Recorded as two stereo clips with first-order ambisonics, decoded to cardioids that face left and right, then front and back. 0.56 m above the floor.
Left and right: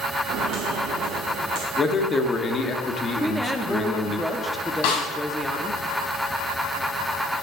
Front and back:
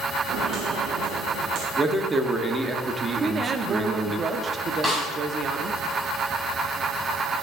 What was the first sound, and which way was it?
Footsteps, 130° right.